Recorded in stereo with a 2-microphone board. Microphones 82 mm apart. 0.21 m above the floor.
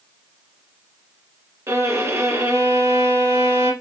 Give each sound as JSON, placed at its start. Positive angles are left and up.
{"t": 1.7, "sound": "a violin", "side_deg": -30, "distance_m": 1.6}